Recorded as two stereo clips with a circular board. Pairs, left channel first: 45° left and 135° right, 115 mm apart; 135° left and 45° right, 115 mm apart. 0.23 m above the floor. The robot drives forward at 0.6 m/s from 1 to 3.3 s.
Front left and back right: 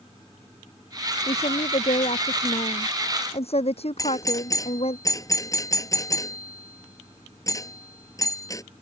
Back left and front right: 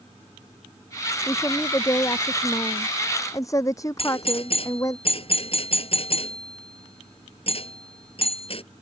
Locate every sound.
1.3 s a woman speaking: 70° left; by 5.0 s 75° left
4.0 s a doorbell: 105° left